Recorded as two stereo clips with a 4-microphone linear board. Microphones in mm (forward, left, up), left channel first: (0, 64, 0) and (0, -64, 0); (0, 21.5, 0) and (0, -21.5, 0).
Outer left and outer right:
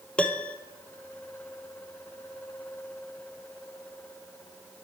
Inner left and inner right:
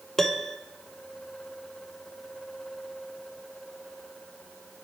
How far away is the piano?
About 0.7 m.